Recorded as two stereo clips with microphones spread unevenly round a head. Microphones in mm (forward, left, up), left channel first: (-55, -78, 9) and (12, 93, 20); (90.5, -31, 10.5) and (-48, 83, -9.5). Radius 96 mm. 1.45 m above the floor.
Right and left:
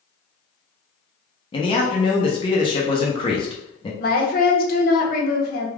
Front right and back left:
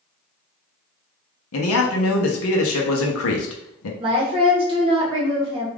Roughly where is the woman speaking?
Behind right.